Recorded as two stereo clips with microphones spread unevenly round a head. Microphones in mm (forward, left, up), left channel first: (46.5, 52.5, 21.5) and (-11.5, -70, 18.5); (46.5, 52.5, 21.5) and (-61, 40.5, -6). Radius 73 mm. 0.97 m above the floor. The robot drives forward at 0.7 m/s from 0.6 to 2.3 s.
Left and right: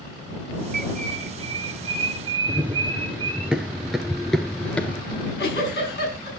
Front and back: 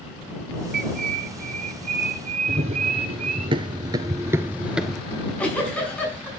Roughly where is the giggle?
Left.